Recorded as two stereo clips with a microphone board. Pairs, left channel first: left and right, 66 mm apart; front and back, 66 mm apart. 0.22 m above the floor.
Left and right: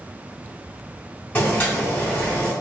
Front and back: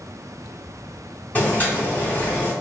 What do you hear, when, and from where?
1.4 s boiling: 40° left, 1.5 m